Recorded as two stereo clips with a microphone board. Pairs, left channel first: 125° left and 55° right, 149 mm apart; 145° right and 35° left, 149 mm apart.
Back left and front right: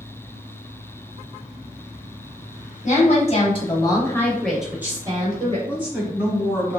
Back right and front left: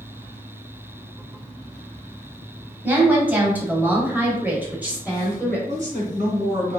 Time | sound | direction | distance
2.8 | a woman speaking | 110° left | 1.4 m
5.7 | a woman speaking | 20° left | 1.9 m